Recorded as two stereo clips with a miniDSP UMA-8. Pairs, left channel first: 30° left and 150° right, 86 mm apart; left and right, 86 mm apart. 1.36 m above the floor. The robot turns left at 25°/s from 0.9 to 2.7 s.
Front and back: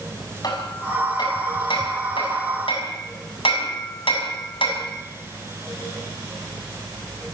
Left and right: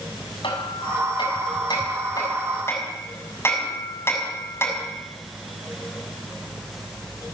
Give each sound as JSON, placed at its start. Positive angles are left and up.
{"t": 0.4, "sound": "hammering", "azimuth_deg": 70, "distance_m": 6.0}